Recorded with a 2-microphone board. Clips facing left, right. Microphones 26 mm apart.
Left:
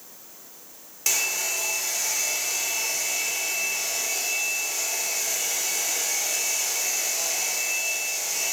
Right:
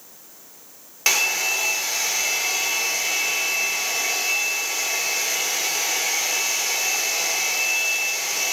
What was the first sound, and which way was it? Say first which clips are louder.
A hair dryer: right 6 dB; 35° right (ahead or behind).